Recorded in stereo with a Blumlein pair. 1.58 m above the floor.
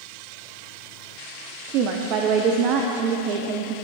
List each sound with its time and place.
1.7 s a woman speaking: 40° right, 0.6 m